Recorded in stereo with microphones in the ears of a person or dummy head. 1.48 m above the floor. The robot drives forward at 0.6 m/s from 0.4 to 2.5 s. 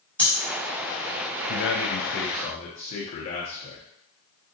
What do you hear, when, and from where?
0.2 s breathing: 10° left (ahead or behind), 2 m
1.5 s a man speaking: 60° left (ahead or behind), 0.6 m; by 3.8 s 40° left (ahead or behind), 0.8 m